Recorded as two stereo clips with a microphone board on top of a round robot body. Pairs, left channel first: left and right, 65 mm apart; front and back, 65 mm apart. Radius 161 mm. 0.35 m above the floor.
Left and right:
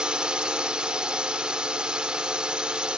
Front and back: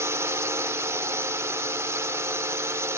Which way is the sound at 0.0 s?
165° right.